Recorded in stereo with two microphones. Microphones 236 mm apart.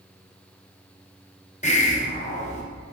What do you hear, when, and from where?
1.6 s a hiss: 30° left (ahead or behind), 1.1 m